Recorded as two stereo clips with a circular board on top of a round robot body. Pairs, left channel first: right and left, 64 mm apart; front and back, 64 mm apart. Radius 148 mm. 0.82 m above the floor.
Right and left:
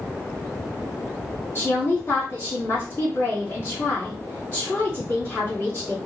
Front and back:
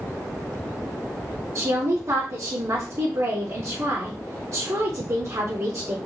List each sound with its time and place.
1.6 s a woman speaking: 150° right, 2.0 m